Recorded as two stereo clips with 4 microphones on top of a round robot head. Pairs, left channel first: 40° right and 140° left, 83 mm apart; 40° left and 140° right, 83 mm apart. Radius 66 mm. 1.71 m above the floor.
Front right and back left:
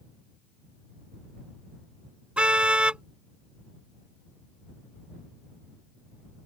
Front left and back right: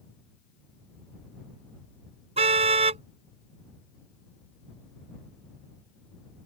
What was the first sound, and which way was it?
A car horn, 145° right.